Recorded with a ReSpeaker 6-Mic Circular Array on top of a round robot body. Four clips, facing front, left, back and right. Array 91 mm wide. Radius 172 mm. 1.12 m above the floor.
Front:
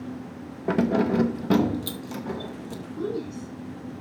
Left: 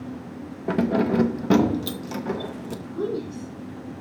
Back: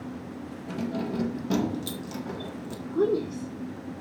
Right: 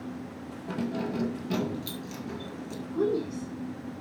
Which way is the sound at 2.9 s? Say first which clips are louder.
Right 1 dB, back 6 dB; 170° right.